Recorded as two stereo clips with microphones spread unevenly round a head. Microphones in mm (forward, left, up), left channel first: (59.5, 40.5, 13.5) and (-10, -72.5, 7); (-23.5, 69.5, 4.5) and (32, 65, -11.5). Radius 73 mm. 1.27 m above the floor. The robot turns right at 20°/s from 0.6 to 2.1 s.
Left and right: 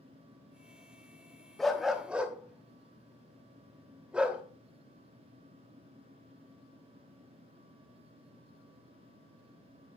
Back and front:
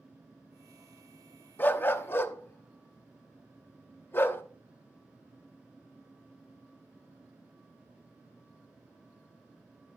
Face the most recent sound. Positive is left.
turn(degrees=155)